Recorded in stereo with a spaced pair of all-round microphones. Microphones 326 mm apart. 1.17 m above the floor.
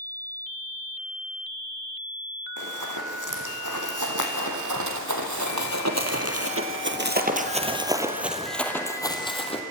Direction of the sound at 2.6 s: 65° right (ahead or behind).